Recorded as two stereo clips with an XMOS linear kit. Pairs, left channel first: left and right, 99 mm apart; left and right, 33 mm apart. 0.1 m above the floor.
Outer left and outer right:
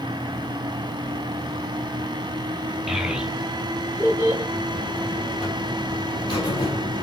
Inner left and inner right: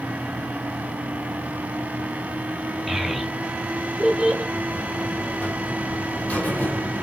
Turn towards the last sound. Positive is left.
turn(degrees=65)  # may be behind; listen again after turning